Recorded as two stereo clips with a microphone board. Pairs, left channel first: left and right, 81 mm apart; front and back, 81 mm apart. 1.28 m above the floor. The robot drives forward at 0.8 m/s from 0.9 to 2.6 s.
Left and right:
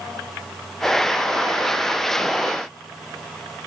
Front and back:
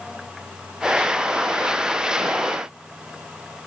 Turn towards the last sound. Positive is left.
No sound to turn to.